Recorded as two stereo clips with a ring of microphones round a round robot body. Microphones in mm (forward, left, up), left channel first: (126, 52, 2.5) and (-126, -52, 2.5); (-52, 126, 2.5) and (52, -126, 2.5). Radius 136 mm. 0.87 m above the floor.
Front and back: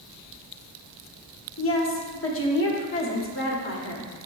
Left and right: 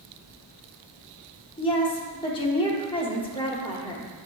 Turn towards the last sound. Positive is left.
turn(degrees=45)